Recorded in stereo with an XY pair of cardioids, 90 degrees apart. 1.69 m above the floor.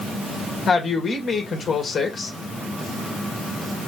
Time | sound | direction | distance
0.7 | a woman speaking | 45° left | 2 m